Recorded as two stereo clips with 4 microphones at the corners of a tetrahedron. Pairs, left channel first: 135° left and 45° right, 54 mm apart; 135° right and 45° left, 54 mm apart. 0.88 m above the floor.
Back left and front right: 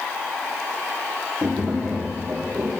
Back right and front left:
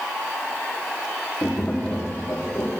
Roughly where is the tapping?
Right.